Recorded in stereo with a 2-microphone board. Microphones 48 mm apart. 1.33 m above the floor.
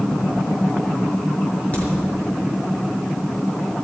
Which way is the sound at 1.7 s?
30° left (ahead or behind).